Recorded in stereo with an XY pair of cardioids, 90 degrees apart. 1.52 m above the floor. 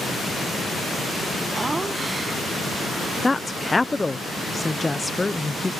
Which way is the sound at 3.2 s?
20° left.